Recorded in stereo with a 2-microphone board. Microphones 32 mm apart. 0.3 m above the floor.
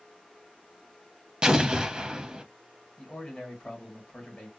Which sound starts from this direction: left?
A man speaking, at 3.0 s.